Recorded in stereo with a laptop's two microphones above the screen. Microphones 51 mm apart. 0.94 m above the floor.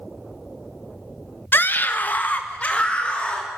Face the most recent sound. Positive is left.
turn(degrees=20)  # may be behind; listen again after turning